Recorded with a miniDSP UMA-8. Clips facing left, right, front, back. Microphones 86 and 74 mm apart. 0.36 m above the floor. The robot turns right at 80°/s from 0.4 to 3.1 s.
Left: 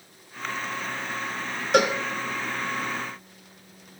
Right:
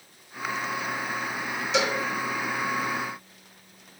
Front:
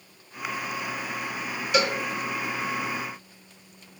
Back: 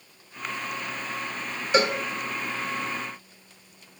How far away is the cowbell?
About 1.0 m.